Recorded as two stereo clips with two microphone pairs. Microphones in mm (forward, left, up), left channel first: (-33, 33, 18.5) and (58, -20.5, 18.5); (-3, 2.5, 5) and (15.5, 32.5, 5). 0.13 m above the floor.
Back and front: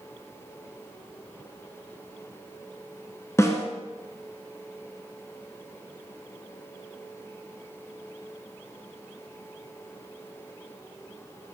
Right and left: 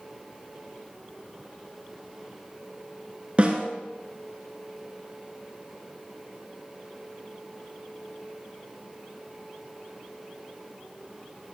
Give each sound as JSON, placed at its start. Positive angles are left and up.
{"t": 3.4, "sound": "a snare drum", "azimuth_deg": 100, "distance_m": 1.6}